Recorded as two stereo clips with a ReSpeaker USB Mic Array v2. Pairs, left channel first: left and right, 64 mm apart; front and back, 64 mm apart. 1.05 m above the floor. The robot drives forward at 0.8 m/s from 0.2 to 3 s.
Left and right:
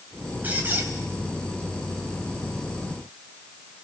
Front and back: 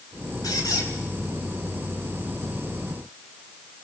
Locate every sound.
0.4 s a squeak: 25° right, 4 m; by 0.9 s 30° right, 3.5 m